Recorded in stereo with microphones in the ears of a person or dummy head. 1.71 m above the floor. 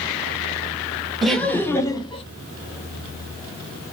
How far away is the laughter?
About 1.1 m.